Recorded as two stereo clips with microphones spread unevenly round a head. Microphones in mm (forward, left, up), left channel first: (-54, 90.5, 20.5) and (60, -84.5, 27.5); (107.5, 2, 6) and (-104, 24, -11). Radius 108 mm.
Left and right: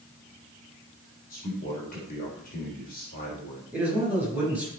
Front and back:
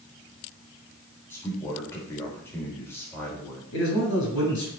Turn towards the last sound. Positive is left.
turn(degrees=30)